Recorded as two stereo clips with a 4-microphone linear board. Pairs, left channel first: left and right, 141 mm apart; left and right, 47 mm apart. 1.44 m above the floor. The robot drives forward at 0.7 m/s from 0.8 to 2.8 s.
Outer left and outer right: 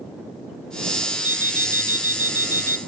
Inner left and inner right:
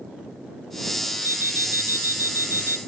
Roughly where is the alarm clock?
Right.